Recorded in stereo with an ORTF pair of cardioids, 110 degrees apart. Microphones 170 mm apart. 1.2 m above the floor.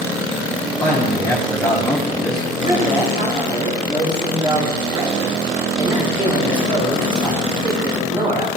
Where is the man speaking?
15° left, 2.5 m.